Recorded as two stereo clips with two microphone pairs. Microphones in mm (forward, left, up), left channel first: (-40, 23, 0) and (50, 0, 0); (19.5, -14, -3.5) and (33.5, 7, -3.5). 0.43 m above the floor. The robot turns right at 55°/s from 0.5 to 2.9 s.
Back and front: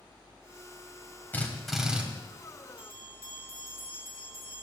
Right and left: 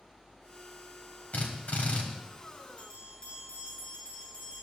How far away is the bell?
About 5 m.